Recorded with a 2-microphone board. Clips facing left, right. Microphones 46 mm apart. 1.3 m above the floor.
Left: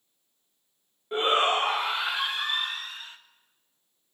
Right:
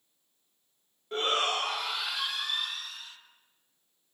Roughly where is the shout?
Centre.